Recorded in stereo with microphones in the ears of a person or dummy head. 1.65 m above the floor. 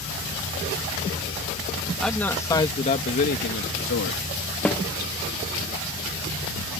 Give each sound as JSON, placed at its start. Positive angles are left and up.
{"t": 2.0, "sound": "a man speaking", "side_deg": 0}
{"t": 4.7, "sound": "a snare drum", "side_deg": 5}